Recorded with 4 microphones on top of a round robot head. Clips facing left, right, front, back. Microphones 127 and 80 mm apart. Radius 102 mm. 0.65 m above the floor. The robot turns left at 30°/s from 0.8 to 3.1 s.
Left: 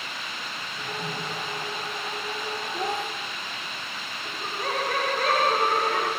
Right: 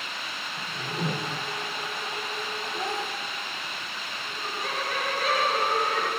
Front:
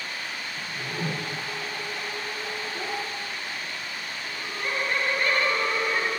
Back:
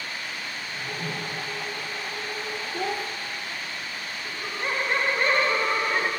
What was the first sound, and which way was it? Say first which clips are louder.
A whoosh: right 4 dB, front 3 dB; 45° right.